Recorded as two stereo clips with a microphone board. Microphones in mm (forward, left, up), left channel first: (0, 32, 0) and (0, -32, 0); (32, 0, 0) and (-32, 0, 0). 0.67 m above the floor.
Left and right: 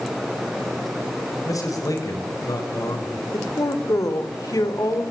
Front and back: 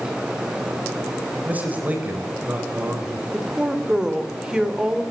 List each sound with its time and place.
1.4 s a man speaking: 115° left, 3.5 m
3.3 s a woman speaking: 100° left, 2.5 m